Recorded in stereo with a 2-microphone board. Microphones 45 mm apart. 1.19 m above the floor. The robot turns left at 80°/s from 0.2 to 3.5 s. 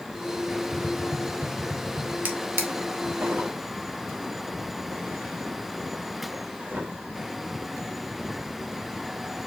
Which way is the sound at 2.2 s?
40° right (ahead or behind).